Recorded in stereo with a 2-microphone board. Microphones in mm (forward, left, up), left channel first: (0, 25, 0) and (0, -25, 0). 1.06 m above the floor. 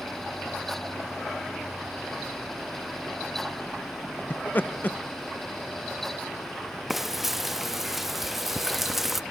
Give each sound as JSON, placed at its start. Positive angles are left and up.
{"t": 4.3, "sound": "laughter", "side_deg": 40, "distance_m": 0.6}
{"t": 6.9, "sound": "frying", "side_deg": -5, "distance_m": 0.8}